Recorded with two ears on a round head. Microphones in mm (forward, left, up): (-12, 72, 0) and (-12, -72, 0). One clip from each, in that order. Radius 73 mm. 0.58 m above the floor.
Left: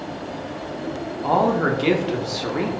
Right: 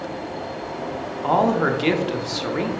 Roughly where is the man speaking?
Centre.